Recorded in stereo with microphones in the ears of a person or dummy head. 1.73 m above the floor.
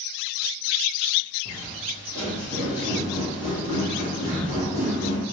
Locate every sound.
1.4 s footsteps: 30° right (ahead or behind), 1.9 m; by 5.2 s 30° left (ahead or behind), 2 m